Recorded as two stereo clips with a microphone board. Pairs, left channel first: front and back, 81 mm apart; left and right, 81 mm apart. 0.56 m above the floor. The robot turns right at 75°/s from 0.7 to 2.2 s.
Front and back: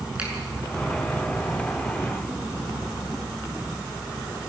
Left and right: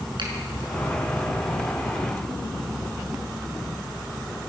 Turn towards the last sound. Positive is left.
turn(degrees=10)